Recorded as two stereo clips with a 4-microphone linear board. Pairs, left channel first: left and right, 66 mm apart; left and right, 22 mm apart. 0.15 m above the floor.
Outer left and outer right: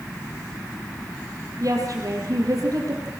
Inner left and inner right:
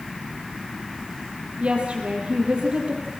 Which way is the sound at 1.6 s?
55° right (ahead or behind).